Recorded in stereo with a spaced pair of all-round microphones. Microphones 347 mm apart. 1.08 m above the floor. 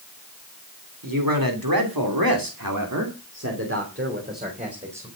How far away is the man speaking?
About 3 m.